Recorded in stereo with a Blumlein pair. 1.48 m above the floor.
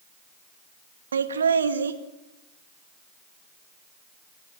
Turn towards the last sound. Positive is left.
turn(degrees=-70)